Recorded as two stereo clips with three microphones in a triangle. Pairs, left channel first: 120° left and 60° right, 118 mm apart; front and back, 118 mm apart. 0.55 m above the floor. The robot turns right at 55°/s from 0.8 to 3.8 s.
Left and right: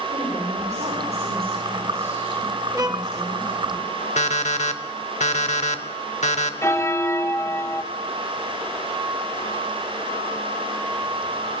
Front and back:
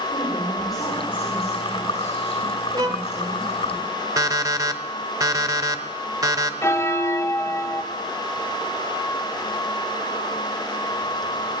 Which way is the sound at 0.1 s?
60° right.